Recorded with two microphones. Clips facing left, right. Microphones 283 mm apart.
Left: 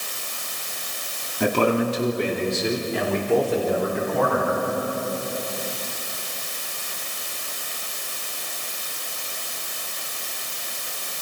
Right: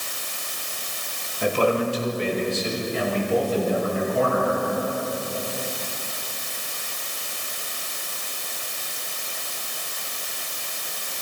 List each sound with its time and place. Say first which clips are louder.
1.4 s a man speaking: left 1 dB; 75° left (ahead or behind), 3 m